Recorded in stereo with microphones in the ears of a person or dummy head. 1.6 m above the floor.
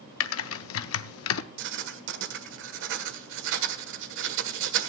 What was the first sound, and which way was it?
Typing on a keyboard, 80° left.